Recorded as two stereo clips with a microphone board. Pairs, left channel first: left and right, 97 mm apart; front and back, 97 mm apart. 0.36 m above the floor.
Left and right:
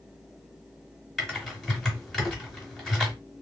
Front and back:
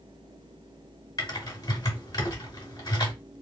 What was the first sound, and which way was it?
Typing on a keyboard, 5° left.